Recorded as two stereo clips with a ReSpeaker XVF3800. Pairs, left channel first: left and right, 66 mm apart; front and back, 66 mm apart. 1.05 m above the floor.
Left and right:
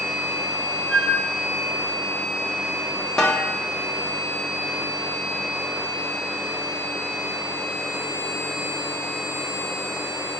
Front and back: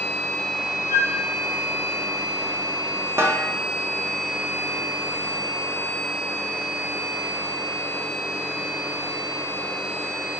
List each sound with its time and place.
0.9 s a flute: 175° right, 1.2 m
3.2 s a snare drum: 170° left, 0.6 m